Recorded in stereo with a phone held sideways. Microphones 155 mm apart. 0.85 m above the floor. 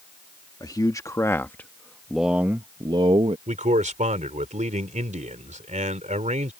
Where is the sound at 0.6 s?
25° left (ahead or behind); by 3.4 s 40° right (ahead or behind).